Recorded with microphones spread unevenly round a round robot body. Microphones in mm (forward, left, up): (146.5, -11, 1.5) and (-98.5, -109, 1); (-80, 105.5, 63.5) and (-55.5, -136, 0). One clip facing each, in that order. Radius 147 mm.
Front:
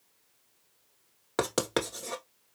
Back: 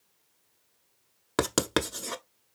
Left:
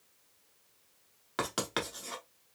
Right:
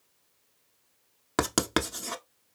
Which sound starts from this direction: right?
Writing, at 1.4 s.